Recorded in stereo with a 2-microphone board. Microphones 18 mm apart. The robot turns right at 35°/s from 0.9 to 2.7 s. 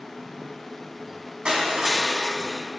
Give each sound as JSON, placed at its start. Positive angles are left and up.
{"t": 1.4, "sound": "crushing", "azimuth_deg": -90, "distance_m": 2.5}